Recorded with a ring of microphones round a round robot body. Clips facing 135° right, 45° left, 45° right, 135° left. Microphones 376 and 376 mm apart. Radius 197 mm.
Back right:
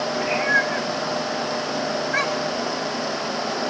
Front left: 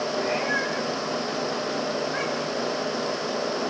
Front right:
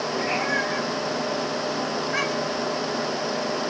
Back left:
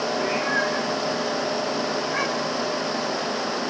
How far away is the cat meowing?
About 5.5 m.